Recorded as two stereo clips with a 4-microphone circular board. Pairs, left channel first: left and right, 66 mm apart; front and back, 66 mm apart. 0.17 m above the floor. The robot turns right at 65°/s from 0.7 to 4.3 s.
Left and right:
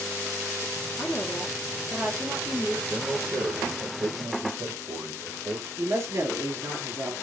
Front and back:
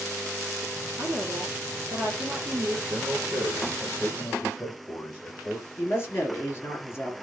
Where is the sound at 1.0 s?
130° left, 3 m; by 2.8 s 115° right, 3 m.